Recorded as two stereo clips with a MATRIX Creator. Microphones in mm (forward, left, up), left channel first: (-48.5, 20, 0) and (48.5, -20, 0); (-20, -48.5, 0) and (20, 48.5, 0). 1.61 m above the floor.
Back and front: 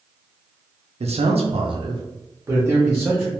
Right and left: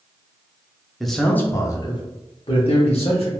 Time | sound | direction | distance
1.0 | a man speaking | 20° right | 0.6 m